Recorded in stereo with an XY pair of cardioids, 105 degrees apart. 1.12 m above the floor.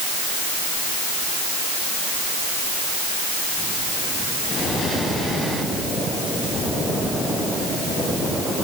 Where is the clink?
I don't hear a clink.